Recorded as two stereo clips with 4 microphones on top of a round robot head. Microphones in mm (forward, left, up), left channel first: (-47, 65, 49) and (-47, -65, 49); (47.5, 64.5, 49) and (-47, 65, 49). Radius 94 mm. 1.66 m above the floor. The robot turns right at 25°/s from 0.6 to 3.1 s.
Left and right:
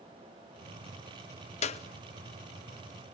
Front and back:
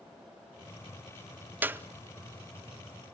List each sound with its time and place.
1.6 s a clap: 115° left, 0.6 m; by 1.8 s 120° left, 0.6 m